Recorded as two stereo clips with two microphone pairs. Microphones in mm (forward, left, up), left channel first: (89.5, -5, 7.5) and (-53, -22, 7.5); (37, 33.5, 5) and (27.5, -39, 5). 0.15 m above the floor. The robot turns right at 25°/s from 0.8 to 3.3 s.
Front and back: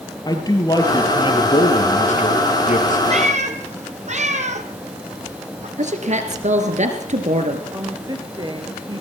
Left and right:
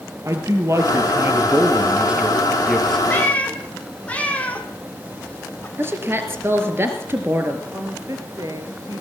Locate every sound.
0.2 s a man speaking: 55° right, 3 m; by 3.0 s straight ahead, 3 m
3.1 s a cat meowing: 145° left, 1.8 m; by 5.7 s 150° left, 1.8 m
5.8 s a woman speaking: 150° right, 2.5 m
7.7 s a woman speaking: 120° right, 3 m